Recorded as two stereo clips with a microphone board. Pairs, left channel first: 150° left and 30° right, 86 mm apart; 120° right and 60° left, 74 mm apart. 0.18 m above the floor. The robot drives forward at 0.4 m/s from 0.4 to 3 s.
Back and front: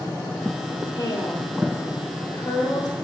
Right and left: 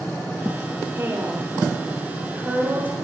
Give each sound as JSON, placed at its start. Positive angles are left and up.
{"t": 0.9, "sound": "a woman speaking", "azimuth_deg": 115, "distance_m": 4.0}